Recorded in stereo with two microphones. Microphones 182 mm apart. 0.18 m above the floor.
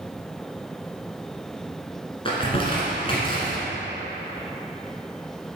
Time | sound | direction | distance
2.2 | crumpling | 30° left (ahead or behind) | 1.7 m